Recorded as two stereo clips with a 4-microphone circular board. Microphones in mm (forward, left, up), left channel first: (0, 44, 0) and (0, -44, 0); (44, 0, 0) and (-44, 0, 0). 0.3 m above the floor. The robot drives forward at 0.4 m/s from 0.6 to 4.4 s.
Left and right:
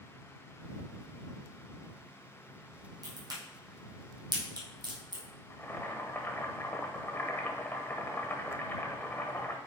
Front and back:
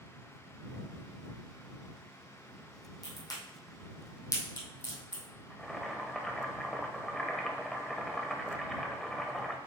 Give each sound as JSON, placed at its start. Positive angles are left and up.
{"t": 3.0, "sound": "a crack", "azimuth_deg": -45, "distance_m": 2.5}
{"t": 5.5, "sound": "boiling", "azimuth_deg": 80, "distance_m": 1.0}